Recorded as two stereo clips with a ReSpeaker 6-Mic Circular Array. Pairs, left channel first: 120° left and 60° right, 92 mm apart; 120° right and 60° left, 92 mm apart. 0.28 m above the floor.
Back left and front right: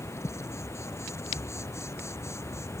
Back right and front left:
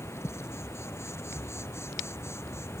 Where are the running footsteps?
No running footsteps in this recording.